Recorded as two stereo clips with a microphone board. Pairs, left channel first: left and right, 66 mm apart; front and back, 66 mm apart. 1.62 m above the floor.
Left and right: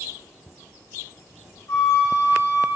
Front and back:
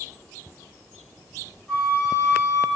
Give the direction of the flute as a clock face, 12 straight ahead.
9 o'clock.